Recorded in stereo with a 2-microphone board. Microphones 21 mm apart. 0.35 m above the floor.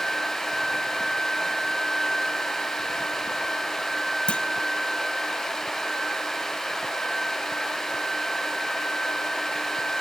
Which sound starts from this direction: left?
A clunk, at 4.3 s.